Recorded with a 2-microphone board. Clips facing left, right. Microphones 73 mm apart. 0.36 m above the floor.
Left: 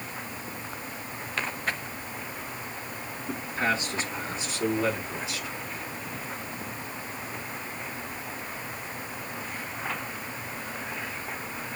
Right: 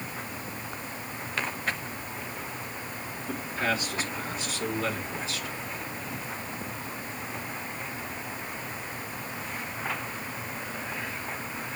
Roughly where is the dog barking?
I don't hear a dog barking.